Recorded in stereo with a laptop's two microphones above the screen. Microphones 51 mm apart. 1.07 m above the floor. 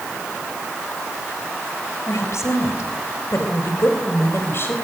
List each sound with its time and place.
2.1 s a woman speaking: 65° left (ahead or behind), 4.5 m; by 4.7 s 45° left (ahead or behind), 4.5 m